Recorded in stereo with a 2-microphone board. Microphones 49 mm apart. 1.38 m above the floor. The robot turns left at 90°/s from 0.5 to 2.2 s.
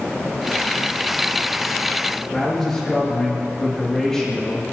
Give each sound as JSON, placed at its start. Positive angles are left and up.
{"t": 2.3, "sound": "a man speaking", "side_deg": 10, "distance_m": 2.5}